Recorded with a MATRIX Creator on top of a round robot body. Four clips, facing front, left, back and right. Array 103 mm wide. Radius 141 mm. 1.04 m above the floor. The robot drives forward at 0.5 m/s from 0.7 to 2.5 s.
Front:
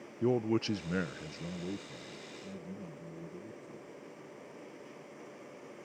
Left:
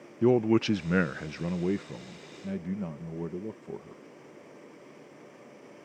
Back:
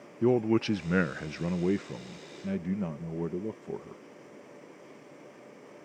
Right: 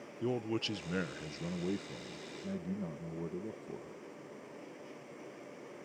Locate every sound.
0.2 s a man speaking: 115° left; by 4.0 s 155° left